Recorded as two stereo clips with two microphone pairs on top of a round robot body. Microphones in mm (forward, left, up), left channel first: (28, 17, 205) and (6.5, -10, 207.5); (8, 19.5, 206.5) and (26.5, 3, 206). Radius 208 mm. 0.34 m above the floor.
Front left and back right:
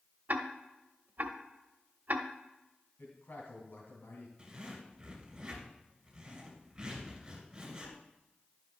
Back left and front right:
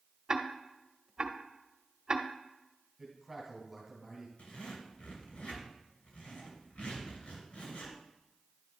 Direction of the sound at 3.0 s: 40° left.